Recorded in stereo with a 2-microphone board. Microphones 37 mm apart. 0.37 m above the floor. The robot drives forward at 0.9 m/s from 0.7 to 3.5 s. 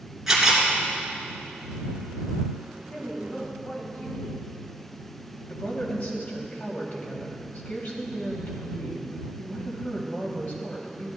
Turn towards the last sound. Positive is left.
turn(degrees=55)  # may be behind; listen again after turning